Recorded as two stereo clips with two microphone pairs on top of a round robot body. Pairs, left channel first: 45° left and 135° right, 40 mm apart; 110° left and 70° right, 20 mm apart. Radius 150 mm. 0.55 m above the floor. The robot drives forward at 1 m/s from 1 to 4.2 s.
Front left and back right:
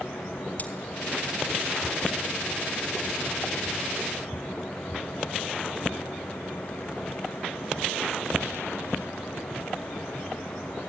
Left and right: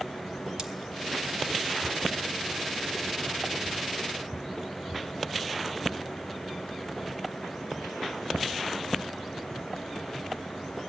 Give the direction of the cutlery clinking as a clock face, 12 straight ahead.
12 o'clock.